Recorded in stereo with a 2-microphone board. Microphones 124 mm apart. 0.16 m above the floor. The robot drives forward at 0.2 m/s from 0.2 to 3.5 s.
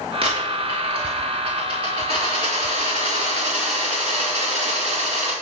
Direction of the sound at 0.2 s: 45° right (ahead or behind).